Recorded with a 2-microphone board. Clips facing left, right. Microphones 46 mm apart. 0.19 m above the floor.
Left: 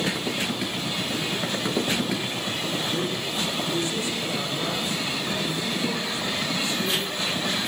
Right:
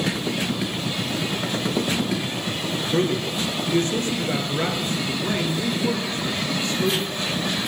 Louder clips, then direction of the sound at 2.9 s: Right 5 dB; 50° right (ahead or behind).